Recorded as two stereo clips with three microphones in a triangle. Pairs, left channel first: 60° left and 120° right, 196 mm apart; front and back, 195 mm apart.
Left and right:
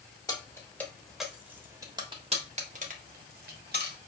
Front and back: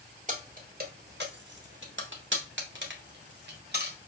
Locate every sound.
0.3 s keys jangling: 130° left, 1.3 m; by 4.0 s 150° right, 1.7 m